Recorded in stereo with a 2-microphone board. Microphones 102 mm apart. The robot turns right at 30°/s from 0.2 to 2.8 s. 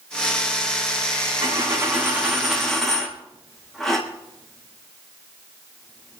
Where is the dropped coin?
40° right (ahead or behind), 4.5 m; by 6.2 s 5° left (ahead or behind), 4.5 m.